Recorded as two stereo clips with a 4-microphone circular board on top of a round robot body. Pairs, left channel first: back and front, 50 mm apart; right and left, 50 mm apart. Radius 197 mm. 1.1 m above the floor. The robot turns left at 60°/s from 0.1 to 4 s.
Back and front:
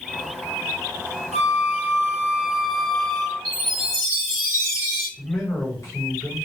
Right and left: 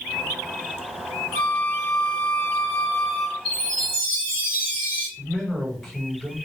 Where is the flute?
5° right, 1.9 m; by 3.4 s 125° right, 1.9 m.